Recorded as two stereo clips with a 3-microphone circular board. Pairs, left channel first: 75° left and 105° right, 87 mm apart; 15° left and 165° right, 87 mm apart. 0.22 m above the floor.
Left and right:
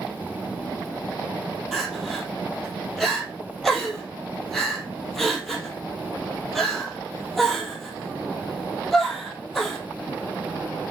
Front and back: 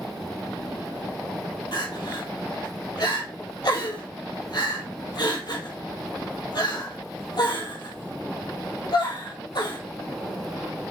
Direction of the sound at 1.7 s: 15° right.